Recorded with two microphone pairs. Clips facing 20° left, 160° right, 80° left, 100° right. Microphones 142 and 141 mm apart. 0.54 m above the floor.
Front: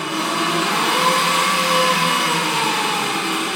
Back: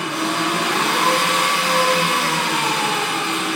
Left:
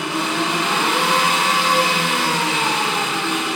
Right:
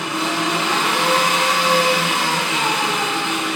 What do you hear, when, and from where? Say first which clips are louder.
0.0 s an engine running: even, even; 25° left, 5 m